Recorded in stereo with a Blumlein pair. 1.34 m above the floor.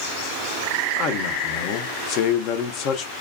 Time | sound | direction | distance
1.0 | a man speaking | 40° left | 0.8 m